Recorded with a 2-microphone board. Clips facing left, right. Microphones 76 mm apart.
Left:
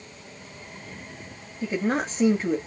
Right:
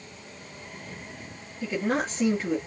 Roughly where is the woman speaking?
Centre.